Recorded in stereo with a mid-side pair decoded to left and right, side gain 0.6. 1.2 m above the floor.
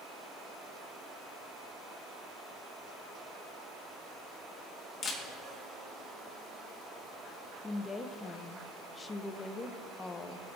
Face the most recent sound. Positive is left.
turn(degrees=25)